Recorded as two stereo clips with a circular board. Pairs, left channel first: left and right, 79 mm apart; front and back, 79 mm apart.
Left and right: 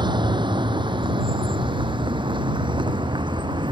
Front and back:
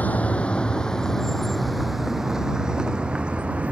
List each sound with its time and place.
0.0 s a vehicle: 70° right; by 3.7 s 105° right